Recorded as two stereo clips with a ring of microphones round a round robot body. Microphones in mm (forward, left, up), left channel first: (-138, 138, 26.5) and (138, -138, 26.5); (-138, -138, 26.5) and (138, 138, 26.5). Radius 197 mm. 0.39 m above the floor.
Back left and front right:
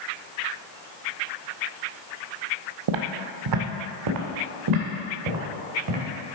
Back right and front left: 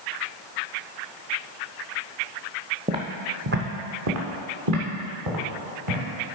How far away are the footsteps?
About 0.7 m.